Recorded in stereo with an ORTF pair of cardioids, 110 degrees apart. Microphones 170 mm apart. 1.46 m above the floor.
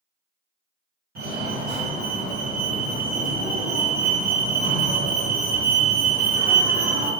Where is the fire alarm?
65° right, 1.9 m.